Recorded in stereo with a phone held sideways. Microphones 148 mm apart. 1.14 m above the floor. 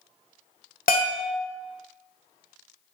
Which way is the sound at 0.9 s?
75° left (ahead or behind).